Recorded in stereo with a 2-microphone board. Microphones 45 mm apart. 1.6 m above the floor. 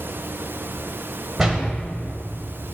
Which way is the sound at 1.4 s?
10° right (ahead or behind).